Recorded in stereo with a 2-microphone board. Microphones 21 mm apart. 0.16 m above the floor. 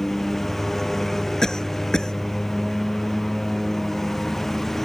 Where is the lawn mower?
10° left (ahead or behind); by 4.8 s 15° left (ahead or behind).